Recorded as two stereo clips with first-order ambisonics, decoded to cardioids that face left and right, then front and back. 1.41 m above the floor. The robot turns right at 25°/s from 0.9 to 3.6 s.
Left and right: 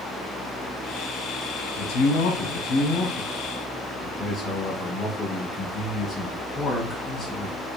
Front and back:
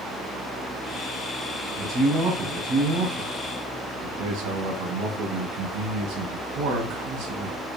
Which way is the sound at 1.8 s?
110° left.